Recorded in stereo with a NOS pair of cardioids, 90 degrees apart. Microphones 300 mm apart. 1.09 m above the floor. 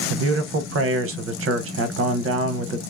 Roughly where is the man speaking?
Ahead right.